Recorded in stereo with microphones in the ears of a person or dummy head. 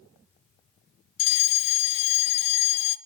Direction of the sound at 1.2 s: 30° left (ahead or behind).